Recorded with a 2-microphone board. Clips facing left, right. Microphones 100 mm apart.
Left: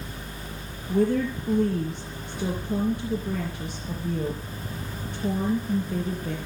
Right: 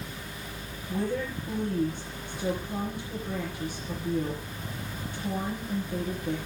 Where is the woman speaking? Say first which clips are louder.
Left 7 dB; 55° left (ahead or behind), 4.5 m.